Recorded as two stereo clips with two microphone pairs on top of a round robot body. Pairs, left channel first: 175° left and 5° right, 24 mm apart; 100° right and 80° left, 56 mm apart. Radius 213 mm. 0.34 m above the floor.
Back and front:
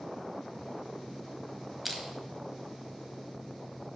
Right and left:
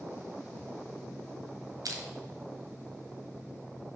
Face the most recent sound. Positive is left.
turn(degrees=85)